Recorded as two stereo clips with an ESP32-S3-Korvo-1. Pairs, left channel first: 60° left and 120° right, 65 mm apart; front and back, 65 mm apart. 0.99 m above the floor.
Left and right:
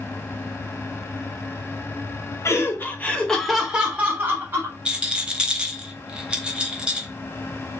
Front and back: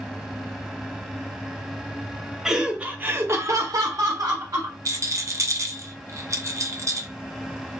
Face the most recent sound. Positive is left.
turn(degrees=170)